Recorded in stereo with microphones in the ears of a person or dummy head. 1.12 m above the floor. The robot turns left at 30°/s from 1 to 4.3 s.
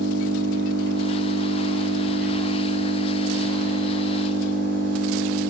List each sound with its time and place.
0.0 s an engine running: 25° left, 1.9 m; by 5.5 s 70° right, 1.9 m